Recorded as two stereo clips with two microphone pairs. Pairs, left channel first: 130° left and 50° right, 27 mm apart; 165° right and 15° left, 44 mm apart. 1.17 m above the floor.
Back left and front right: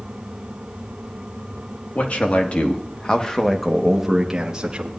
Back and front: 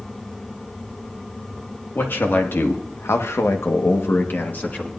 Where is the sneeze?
No sneeze in this recording.